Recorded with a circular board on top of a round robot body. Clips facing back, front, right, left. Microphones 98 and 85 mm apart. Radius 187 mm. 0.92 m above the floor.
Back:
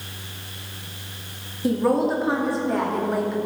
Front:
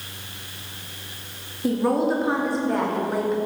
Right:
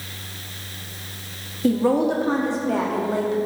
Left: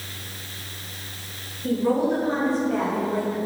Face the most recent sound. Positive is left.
turn(degrees=-90)